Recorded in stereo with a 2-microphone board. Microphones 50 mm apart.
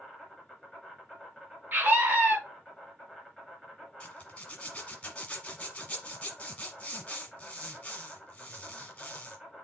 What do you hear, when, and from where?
0.0 s an insect: centre (ahead or behind), 3 m
1.7 s a scream: 35° right (ahead or behind), 2 m
4.0 s a zipper: 25° left (ahead or behind), 1.2 m